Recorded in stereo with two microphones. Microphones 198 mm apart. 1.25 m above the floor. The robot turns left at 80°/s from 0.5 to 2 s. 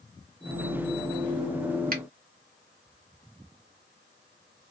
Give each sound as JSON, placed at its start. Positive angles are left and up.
{"t": 1.9, "sound": "a finger snap", "side_deg": -50, "distance_m": 0.7}